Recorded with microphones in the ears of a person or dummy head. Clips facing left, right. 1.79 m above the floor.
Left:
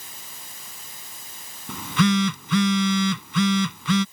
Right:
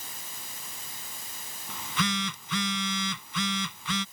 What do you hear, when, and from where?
1.7 s a phone buzzing: 55° left (ahead or behind)